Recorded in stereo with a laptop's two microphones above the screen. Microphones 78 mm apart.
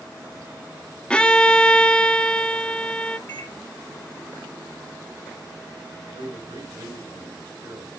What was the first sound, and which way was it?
A violin, 15° left (ahead or behind).